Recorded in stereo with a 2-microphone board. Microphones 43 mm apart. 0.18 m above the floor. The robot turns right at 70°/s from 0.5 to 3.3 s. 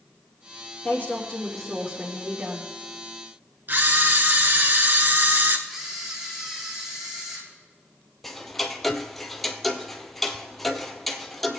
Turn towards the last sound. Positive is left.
turn(degrees=0)  # may be behind; listen again after turning